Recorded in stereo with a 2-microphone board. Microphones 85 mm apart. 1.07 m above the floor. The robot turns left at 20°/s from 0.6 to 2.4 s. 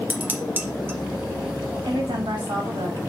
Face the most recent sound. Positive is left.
turn(degrees=-75)  # may be behind; listen again after turning